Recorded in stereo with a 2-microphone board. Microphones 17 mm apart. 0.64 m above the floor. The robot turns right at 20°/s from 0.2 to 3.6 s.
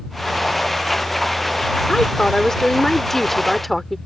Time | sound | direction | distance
1.9 | a woman speaking | 140° left | ?